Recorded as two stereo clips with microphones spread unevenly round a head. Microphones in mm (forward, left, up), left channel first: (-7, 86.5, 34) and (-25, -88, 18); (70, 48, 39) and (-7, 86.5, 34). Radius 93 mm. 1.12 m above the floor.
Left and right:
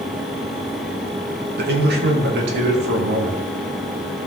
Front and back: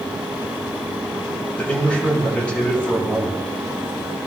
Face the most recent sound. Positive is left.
turn(degrees=-105)